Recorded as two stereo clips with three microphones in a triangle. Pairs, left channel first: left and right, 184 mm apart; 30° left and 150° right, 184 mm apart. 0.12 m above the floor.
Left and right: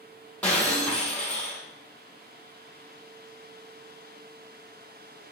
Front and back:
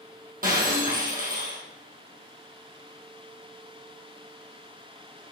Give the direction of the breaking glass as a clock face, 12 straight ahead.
6 o'clock.